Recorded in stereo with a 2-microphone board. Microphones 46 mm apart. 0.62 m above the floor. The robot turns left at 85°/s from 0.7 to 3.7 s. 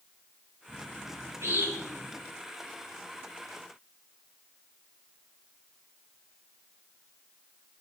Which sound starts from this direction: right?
A bird, at 0.7 s.